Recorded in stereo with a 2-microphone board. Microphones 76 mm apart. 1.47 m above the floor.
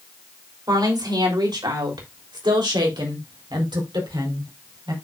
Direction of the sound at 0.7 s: 60° right (ahead or behind).